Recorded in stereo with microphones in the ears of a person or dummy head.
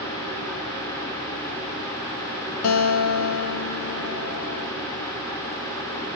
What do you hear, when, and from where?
2.6 s a guitar: 75° left (ahead or behind), 0.6 m